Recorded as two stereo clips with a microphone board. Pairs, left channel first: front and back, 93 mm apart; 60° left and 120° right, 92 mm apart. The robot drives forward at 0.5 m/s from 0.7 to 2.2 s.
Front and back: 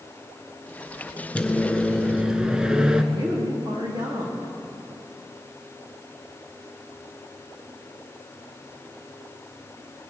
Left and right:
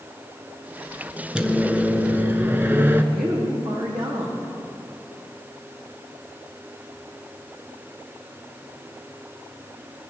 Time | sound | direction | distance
1.4 | a microwave | 55° right | 1.0 m
3.1 | a woman speaking | 150° right | 4.5 m